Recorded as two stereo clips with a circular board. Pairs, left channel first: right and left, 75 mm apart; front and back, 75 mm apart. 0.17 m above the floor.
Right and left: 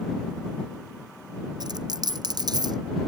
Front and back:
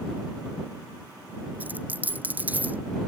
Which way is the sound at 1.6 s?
110° left.